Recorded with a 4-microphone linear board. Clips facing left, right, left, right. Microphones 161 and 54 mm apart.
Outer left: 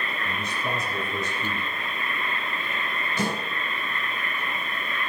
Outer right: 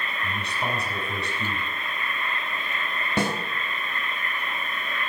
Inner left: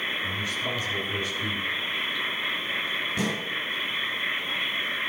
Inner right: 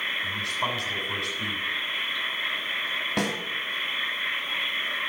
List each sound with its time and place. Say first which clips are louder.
0.2 s a man speaking: outer right 2 dB, inner right 1 dB; 75° right (ahead or behind), 6.5 m
3.2 s a snare drum: outer right 2 dB, inner right 2 dB; 70° right (ahead or behind), 3 m